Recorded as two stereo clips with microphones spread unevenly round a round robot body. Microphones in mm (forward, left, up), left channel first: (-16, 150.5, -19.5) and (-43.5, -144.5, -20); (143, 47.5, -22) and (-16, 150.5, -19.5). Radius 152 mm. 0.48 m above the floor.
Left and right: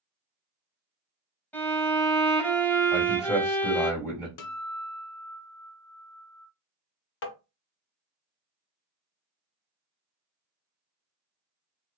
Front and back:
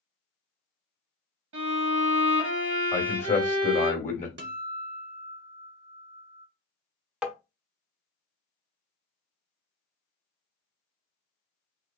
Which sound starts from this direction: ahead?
A man speaking, at 2.9 s.